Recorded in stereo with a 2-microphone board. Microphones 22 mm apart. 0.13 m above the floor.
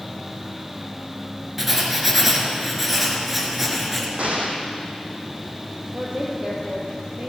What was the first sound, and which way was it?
Writing, 10° right (ahead or behind).